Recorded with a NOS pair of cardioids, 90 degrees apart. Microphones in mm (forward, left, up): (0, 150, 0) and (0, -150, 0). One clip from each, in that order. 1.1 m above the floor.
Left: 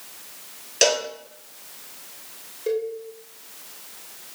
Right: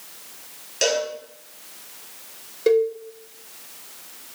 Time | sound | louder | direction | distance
0.8 | a cowbell | left 2 dB | 35° left | 3.5 m
2.7 | a cowbell | right 8 dB | 65° right | 2 m